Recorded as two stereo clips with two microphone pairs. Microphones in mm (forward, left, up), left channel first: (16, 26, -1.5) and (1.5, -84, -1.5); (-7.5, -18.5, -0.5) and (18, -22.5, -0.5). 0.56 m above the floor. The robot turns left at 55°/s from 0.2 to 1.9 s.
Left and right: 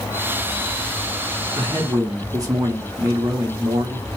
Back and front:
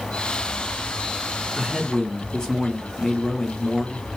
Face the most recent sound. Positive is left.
turn(degrees=-135)